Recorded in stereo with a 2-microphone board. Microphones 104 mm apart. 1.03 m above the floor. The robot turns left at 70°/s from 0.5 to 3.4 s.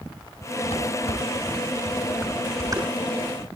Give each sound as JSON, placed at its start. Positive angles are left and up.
{"t": 0.7, "sound": "dishes clattering", "side_deg": 80, "distance_m": 8.0}